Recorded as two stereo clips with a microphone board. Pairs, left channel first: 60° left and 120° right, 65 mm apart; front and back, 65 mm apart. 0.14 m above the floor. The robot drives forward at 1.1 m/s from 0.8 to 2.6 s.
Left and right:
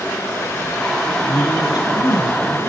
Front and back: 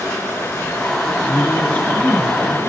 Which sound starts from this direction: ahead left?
A woman speaking, at 1.3 s.